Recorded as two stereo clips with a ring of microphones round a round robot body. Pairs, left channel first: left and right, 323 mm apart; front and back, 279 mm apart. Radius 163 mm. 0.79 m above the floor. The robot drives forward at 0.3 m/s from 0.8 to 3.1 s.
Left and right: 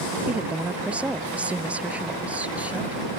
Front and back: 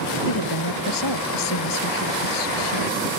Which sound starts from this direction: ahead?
A woman speaking, at 0.3 s.